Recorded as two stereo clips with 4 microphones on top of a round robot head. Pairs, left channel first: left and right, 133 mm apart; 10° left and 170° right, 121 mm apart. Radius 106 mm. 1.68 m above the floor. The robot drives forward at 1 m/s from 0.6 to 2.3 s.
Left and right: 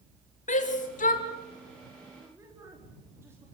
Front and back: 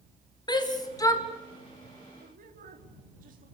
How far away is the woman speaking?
About 4.5 m.